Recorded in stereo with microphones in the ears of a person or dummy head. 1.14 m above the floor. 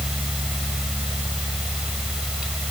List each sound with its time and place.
0.0 s a fan: 5° right (ahead or behind)